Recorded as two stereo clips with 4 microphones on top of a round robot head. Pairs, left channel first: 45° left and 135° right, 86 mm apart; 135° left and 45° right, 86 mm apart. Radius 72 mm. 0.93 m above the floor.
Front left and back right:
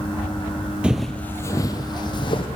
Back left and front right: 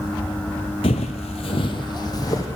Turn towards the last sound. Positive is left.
turn(degrees=80)